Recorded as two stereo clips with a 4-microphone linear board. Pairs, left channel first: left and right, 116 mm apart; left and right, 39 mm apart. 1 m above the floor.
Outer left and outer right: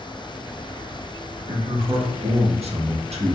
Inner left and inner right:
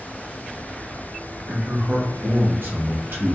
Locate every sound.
1.5 s a man speaking: 65° right (ahead or behind), 1.0 m